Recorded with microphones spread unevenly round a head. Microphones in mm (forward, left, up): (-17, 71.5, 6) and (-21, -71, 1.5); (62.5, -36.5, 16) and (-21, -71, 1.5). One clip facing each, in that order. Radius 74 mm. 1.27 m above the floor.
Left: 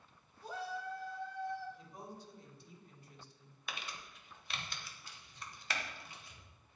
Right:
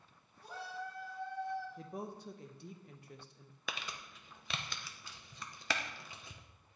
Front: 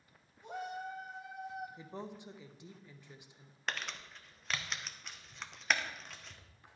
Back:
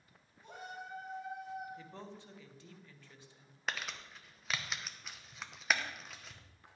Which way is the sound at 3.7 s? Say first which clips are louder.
Right 2 dB, even; 75° right.